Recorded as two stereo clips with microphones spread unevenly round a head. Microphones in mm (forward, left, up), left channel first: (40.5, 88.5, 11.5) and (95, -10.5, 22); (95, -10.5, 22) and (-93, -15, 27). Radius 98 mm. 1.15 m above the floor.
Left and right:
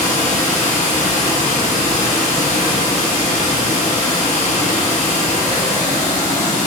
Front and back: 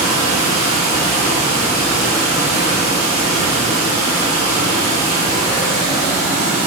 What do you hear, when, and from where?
0.0 s running water: 105° left, 1.1 m